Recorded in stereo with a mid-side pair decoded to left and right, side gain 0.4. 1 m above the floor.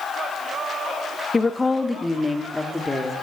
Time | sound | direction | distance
1.3 | a woman speaking | 25° left | 1.0 m